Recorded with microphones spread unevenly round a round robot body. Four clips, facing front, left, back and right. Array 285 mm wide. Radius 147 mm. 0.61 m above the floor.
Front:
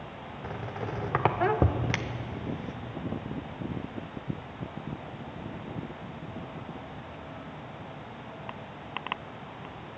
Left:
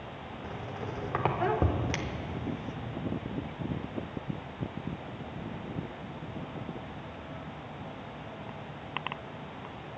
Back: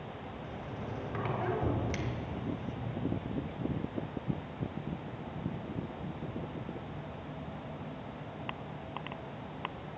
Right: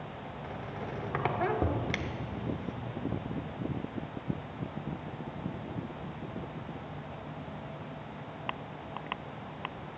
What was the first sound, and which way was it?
A squeak, 5° left.